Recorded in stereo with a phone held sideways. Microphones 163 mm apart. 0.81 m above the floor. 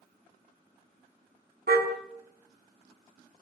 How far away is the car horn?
About 4 m.